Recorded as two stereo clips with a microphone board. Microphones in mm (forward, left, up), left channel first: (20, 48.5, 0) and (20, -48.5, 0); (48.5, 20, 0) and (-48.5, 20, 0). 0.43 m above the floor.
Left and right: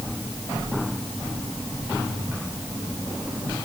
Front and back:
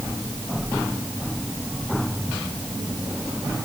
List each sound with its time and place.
Only background noise.